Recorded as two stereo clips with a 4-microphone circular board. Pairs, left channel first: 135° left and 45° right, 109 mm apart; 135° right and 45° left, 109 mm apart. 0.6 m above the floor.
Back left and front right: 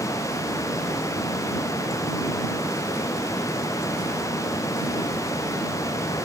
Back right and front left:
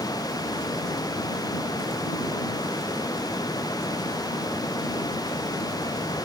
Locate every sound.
Only background noise.